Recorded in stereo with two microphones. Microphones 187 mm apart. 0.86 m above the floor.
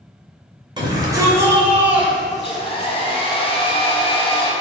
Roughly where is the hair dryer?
Left.